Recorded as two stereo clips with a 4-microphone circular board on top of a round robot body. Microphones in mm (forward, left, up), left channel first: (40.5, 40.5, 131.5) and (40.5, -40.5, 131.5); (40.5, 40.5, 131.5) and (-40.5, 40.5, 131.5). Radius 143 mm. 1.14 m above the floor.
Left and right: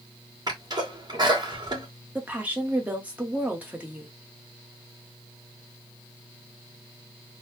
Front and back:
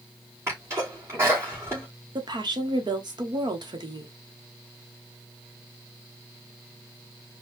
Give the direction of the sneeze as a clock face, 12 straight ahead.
4 o'clock.